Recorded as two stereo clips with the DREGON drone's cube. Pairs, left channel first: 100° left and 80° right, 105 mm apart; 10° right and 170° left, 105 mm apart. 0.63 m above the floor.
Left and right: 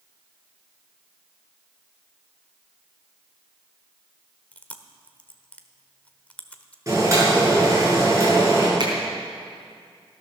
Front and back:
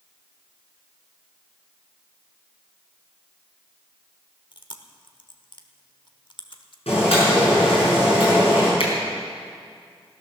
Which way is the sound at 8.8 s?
30° right.